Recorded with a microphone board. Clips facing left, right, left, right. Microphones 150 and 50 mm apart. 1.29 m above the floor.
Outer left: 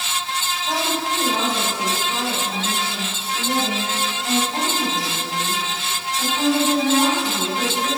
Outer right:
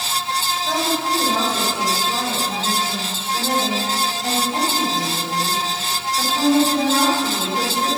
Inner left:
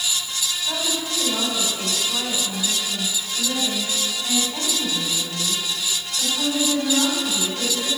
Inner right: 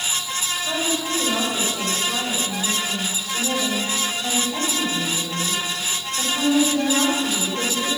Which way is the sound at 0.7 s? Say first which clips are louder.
Outer right 2 dB, inner right 3 dB; 75° right (ahead or behind).